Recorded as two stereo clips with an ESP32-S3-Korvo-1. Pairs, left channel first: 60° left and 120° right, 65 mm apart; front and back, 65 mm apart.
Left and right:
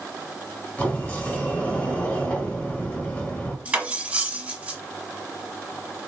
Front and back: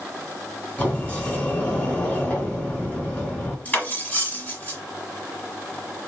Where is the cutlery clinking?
60° right, 1.1 m.